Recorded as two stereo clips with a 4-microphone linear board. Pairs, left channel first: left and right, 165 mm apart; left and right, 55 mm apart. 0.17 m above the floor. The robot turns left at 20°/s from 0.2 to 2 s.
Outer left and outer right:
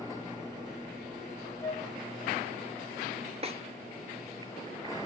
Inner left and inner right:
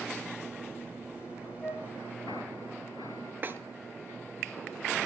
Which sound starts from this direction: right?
A snare drum, at 3.4 s.